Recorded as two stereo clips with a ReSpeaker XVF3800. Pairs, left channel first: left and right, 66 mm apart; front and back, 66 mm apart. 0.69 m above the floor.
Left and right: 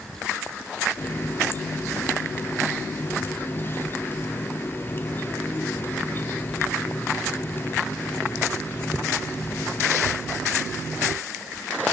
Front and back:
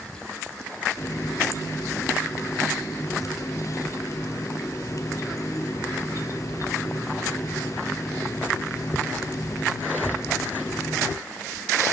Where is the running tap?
35° left, 0.8 m.